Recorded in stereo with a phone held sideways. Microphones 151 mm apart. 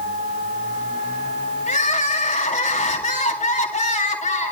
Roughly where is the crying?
Left.